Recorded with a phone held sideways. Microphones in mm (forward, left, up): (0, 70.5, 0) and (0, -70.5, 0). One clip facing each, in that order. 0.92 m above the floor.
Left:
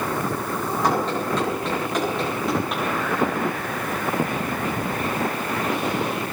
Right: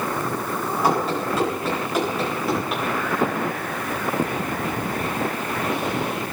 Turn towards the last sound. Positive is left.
turn(degrees=0)  # may be behind; listen again after turning